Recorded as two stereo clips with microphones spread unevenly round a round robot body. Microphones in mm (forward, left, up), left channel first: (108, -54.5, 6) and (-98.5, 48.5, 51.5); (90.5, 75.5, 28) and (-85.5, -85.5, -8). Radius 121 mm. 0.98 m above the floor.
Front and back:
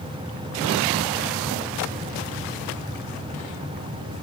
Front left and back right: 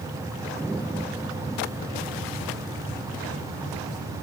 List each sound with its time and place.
Only background noise.